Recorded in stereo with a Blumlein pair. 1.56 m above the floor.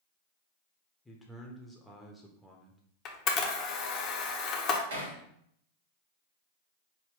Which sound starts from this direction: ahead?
A man speaking, at 1.1 s.